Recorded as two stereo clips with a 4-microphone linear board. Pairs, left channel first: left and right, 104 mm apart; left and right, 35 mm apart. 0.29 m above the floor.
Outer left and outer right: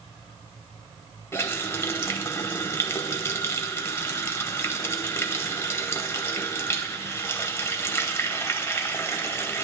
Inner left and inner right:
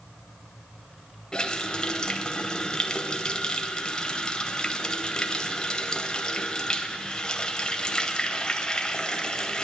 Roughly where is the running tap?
Left.